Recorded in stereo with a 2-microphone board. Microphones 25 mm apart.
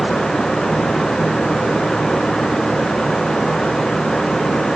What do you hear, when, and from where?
Only background noise.